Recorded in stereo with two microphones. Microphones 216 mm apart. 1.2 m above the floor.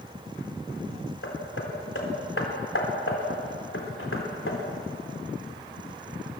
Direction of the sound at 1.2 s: 75° left (ahead or behind).